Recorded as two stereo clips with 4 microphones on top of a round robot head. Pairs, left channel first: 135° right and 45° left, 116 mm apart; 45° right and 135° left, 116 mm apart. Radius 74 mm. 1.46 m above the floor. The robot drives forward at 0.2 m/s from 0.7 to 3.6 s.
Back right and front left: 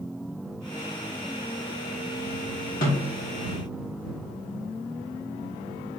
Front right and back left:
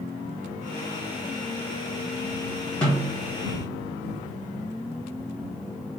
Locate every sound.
2.8 s a snare drum: 125° right, 2.5 m; by 3.3 s 130° right, 2.5 m